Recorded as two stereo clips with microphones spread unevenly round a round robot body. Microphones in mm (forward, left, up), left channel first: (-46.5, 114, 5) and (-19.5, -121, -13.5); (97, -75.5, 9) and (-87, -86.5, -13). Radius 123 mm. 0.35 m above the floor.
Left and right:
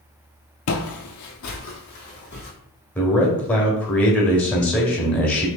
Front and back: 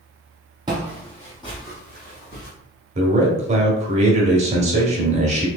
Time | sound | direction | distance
0.7 | footsteps | 110° left | 0.5 m
3.0 | a man speaking | straight behind | 1.2 m